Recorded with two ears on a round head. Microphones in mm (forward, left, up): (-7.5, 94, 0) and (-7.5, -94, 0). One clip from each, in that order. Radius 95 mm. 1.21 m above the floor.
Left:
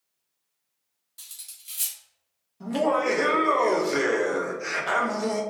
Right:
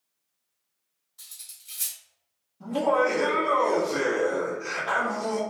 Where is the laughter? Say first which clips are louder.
Right 1 dB; 45° left (ahead or behind), 0.9 m.